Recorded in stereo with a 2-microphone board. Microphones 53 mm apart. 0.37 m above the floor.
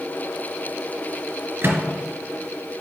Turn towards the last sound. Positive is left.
turn(degrees=-40)  # may be behind; listen again after turning